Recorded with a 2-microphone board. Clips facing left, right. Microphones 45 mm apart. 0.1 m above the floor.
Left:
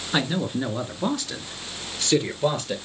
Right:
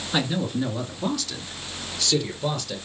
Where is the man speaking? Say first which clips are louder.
Even; 20° left (ahead or behind), 1.6 m; by 2.8 s 35° left (ahead or behind), 2.5 m.